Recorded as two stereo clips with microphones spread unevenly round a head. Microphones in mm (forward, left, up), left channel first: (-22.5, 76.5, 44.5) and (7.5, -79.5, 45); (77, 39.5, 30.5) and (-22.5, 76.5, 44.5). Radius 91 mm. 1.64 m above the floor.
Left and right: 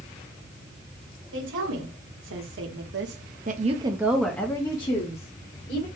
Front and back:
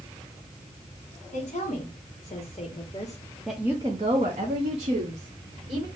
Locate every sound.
1.3 s a woman speaking: 70° right, 1.7 m; by 5.9 s 145° left, 1.4 m